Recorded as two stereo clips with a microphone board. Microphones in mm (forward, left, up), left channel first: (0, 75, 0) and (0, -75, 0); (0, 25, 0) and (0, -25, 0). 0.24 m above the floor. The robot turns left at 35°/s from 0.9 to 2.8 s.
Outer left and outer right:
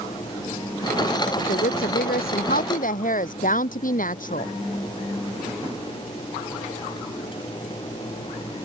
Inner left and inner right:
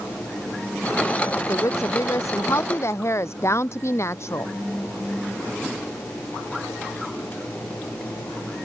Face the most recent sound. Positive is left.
turn(degrees=65)